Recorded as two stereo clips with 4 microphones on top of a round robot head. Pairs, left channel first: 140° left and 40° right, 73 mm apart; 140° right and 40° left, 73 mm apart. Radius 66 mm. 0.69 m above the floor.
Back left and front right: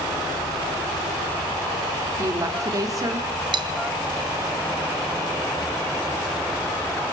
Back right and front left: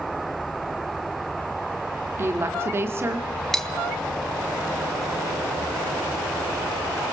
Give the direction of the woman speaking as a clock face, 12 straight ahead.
12 o'clock.